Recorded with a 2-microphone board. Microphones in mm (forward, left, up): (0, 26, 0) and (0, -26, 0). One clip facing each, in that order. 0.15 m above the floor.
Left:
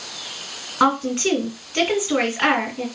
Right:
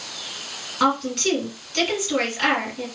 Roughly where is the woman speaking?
Left.